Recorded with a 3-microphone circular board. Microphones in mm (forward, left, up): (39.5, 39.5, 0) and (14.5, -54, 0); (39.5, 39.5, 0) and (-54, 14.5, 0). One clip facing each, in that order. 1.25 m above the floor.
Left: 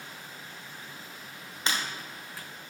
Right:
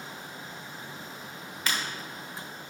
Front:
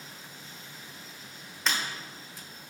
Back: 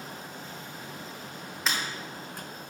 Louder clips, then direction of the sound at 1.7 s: Left 1 dB, even; 110° left.